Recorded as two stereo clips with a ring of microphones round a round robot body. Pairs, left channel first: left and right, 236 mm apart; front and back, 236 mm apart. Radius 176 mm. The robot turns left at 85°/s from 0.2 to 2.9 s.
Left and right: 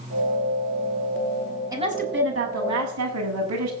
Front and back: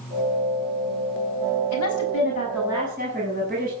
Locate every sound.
1.7 s a woman speaking: 15° right, 6.5 m; by 3.7 s 115° right, 6.5 m